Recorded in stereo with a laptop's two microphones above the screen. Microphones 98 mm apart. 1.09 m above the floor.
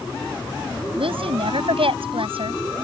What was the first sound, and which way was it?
A woman speaking, 75° right (ahead or behind).